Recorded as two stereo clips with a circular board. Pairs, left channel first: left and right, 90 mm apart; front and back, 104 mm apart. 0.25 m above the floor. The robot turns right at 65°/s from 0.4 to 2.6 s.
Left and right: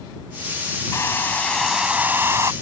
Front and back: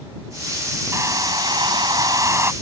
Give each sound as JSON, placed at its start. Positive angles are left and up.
{"t": 0.9, "sound": "a hair dryer", "azimuth_deg": 130}